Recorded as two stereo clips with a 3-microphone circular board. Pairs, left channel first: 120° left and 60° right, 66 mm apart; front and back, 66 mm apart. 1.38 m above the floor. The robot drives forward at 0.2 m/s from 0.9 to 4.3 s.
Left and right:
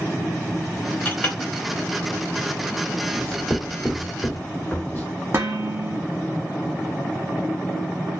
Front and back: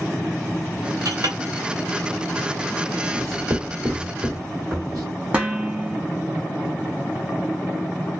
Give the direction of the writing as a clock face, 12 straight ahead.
6 o'clock.